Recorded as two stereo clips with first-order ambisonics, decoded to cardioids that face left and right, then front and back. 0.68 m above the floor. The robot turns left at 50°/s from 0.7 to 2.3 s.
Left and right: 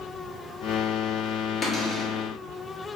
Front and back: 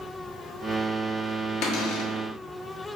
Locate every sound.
1.6 s a cupboard door: 25° left, 0.9 m; by 2.1 s straight ahead, 0.9 m